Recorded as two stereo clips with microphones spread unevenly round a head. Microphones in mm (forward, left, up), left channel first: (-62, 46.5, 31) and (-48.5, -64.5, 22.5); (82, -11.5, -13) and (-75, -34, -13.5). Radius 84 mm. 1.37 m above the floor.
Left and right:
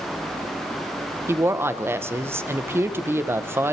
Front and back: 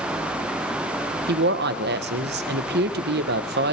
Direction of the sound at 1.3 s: 150° right.